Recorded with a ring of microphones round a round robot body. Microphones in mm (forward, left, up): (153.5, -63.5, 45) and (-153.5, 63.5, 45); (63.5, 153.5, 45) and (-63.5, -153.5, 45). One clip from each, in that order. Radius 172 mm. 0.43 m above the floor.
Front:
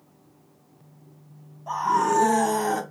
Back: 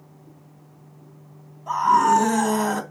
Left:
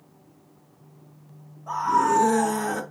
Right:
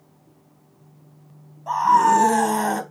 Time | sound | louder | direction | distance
1.7 | a scream | back 5 dB, right 6 dB | 120° right | 3 m